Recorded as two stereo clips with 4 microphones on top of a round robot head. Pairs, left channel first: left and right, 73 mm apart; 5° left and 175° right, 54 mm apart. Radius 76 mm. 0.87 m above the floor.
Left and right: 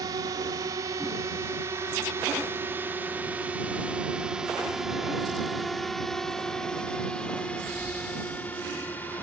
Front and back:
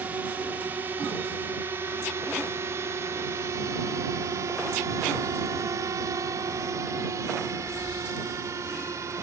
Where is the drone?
120° right; by 9.2 s 155° left.